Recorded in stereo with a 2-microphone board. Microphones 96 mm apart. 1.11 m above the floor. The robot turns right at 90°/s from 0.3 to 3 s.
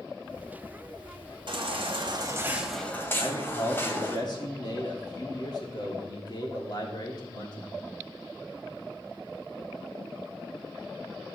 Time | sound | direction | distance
1.5 | a baby crying | 115° right | 1.9 m
3.2 | a man speaking | 45° left (ahead or behind) | 3 m